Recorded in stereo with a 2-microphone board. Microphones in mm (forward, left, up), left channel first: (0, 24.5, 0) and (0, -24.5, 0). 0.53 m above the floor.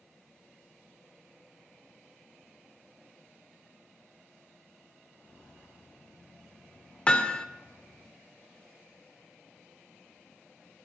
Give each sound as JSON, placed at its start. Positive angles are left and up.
{"t": 5.1, "sound": "footsteps", "side_deg": 20, "distance_m": 6.0}
{"t": 7.1, "sound": "hammering", "side_deg": 20, "distance_m": 0.6}